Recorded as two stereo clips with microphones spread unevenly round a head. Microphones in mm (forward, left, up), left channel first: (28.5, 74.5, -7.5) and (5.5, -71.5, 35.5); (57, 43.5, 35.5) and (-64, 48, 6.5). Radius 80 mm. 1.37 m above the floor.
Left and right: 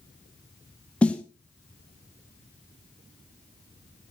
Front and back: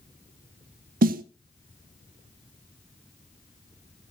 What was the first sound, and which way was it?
A snare drum, 170° left.